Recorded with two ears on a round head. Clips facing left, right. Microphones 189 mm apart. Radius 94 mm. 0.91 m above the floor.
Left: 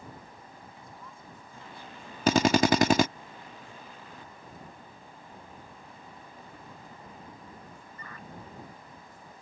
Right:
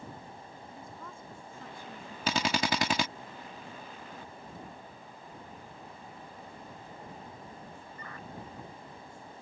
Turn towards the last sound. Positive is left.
turn(degrees=40)  # may be behind; listen again after turning